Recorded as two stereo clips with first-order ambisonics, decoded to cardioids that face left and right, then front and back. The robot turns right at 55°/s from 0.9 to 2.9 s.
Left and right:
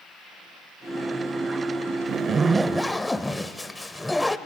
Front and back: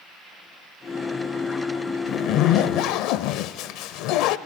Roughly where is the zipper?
Ahead right.